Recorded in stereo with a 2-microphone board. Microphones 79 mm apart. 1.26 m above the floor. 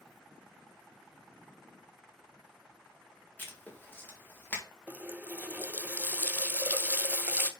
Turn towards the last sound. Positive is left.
turn(degrees=-20)  # may be behind; listen again after turning